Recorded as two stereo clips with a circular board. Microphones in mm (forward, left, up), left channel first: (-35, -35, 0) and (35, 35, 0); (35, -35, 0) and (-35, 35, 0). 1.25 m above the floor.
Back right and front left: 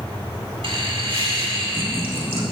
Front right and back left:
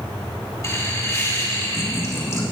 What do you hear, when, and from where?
0.6 s laughter: 15° left, 2.5 m